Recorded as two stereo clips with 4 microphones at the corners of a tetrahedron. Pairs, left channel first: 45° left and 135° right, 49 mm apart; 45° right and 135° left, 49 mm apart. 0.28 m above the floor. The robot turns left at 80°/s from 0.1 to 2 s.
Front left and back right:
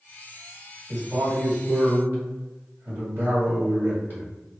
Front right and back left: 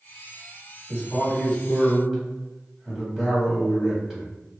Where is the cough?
I don't hear a cough.